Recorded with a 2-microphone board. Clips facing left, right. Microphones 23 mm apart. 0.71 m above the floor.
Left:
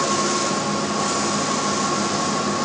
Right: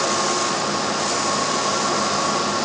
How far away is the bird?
No bird in this recording.